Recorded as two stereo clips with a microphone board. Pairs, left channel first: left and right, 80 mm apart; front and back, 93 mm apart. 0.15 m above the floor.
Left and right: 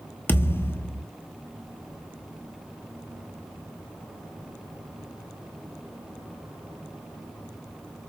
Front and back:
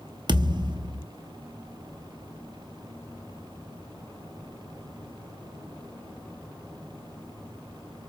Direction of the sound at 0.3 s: 145° left.